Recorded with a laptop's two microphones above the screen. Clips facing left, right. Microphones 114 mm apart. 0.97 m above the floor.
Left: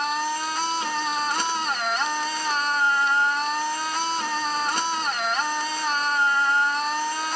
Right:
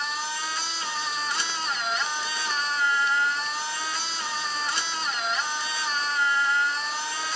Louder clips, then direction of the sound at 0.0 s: Left 6 dB; 50° left (ahead or behind).